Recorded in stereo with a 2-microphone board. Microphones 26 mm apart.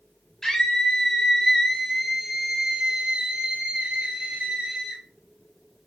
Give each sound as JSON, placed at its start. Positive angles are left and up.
{"t": 0.4, "sound": "a scream", "side_deg": 15, "distance_m": 2.5}